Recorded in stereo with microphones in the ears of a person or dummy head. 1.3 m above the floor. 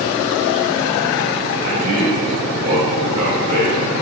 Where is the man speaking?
35° right (ahead or behind), 5.5 m; by 3.9 s 55° right (ahead or behind), 6 m.